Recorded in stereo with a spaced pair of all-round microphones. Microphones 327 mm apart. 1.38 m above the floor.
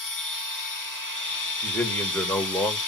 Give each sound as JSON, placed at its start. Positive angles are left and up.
{"t": 0.0, "sound": "a machine running", "side_deg": 70, "distance_m": 0.9}
{"t": 1.6, "sound": "a man speaking", "side_deg": 5, "distance_m": 1.9}